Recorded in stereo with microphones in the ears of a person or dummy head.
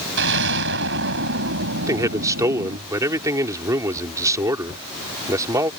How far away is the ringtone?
No ringtone in this recording.